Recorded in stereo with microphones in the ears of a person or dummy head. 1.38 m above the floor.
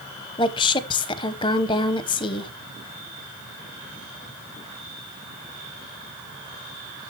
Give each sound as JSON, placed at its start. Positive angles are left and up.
{"t": 0.4, "sound": "a woman speaking", "side_deg": 20, "distance_m": 0.8}